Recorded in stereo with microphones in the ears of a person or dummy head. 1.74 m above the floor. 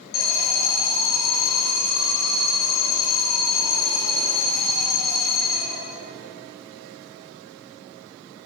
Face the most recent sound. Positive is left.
turn(degrees=45)  # may be behind; listen again after turning